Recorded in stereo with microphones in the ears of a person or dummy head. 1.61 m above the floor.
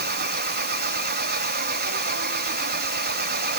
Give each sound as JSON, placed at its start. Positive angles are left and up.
{"t": 0.0, "sound": "an engine running", "side_deg": -50}